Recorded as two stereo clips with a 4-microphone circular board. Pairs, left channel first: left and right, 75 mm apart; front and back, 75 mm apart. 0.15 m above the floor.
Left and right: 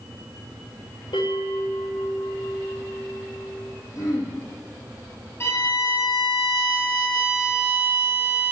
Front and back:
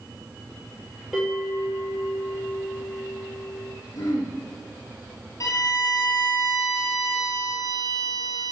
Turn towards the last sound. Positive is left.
turn(degrees=40)